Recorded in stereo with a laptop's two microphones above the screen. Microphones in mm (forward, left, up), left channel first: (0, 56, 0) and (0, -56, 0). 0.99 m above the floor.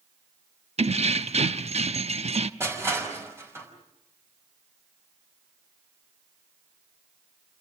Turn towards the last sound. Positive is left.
turn(degrees=-20)  # may be behind; listen again after turning